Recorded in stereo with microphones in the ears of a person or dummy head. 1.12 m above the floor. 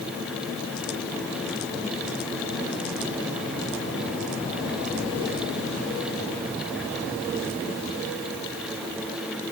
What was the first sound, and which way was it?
Only background noise.